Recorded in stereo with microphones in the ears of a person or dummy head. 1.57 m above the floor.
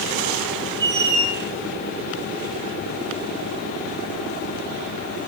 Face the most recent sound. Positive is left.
turn(degrees=-20)  # may be behind; listen again after turning